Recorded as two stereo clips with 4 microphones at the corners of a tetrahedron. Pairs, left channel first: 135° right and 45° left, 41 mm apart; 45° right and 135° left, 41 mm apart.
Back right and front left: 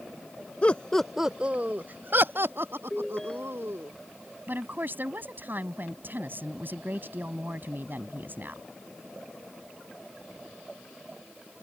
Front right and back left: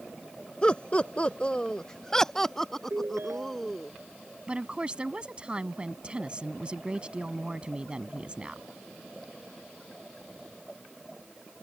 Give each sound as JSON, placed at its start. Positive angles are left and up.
{"t": 0.6, "sound": "laughter", "azimuth_deg": -100}
{"t": 2.9, "sound": "a ringtone", "azimuth_deg": 145}
{"t": 4.5, "sound": "a woman speaking", "azimuth_deg": 75}